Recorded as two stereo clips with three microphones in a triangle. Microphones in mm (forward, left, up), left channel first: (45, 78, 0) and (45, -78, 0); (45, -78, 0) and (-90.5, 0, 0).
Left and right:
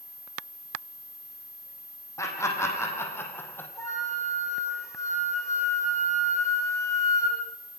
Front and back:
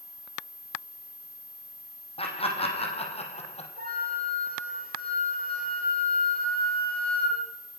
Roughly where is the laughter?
Ahead.